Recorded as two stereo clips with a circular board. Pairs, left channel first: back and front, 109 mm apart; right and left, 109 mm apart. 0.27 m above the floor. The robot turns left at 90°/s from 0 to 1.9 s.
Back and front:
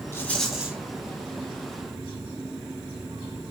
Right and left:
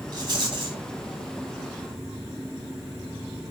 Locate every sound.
0.1 s a rattle: 125° left, 1.0 m; by 0.8 s 65° left, 1.0 m